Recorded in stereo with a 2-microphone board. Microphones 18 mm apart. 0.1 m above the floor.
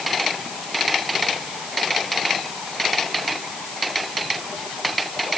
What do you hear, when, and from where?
Only background noise.